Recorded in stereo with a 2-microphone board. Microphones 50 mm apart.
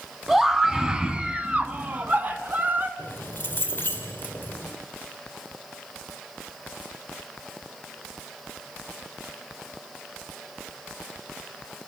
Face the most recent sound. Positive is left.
turn(degrees=40)  # may be behind; listen again after turning